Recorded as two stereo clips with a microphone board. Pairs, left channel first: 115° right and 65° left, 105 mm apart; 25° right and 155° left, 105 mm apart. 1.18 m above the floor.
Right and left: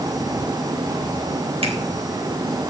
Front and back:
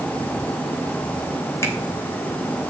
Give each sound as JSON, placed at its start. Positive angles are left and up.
{"t": 1.6, "sound": "a finger snap", "azimuth_deg": 40, "distance_m": 3.5}